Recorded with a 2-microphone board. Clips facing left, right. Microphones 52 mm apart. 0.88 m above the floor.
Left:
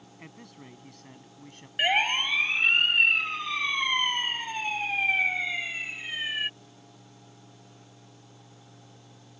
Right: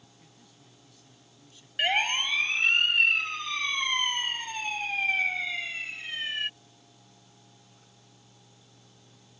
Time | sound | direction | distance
0.2 | a man speaking | 65° left (ahead or behind) | ?
1.8 | a siren | 10° left (ahead or behind) | ?